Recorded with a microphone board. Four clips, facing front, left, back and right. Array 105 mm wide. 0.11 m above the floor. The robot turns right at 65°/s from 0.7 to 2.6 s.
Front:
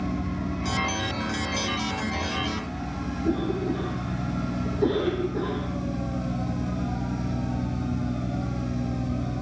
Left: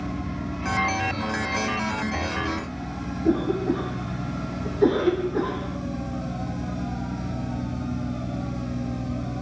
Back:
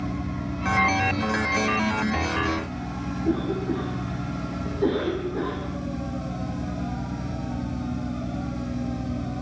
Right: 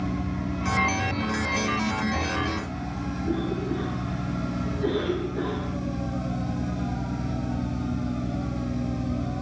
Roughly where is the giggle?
I don't hear a giggle.